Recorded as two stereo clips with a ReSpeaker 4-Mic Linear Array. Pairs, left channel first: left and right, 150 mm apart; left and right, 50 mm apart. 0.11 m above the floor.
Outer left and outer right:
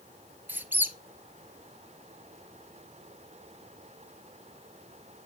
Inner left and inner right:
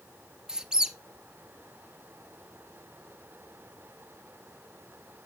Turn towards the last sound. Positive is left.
turn(degrees=-15)  # may be behind; listen again after turning